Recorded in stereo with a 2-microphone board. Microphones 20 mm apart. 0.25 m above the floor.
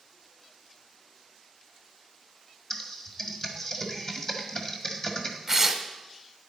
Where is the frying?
I don't hear frying.